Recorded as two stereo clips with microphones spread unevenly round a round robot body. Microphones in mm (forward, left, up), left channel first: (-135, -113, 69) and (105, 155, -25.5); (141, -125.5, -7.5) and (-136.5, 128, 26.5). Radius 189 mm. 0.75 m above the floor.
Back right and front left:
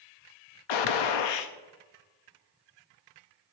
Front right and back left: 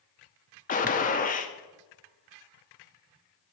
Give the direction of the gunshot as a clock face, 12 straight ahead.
4 o'clock.